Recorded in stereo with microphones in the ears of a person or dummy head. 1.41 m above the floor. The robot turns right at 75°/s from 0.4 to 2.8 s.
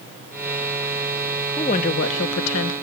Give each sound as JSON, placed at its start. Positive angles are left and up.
{"t": 1.6, "sound": "a woman speaking", "azimuth_deg": 35, "distance_m": 0.9}